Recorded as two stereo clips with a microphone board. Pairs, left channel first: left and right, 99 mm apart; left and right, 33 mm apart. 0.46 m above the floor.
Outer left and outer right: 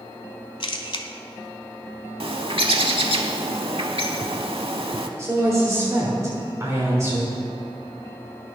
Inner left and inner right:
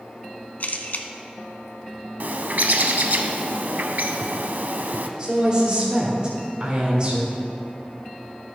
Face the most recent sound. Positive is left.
turn(degrees=-30)  # may be behind; listen again after turning